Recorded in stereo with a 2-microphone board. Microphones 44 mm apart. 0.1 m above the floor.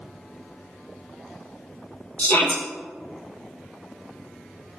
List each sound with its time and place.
2.2 s a shout: 40° left (ahead or behind), 3 m